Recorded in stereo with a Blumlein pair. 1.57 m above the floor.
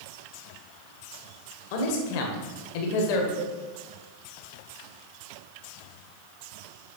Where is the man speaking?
50° left, 1.5 m.